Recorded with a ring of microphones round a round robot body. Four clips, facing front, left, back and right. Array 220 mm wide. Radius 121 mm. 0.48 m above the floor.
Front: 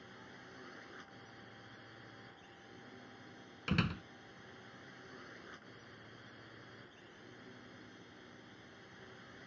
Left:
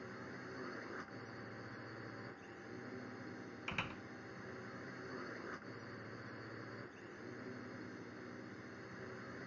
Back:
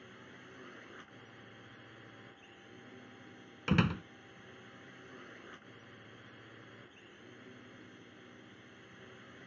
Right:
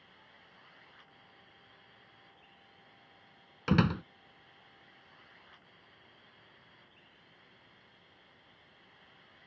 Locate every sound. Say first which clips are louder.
0.0 s a drone: left 12 dB, back 1 dB; 95° left
3.7 s a door slam: right 19 dB, back 5 dB; 110° right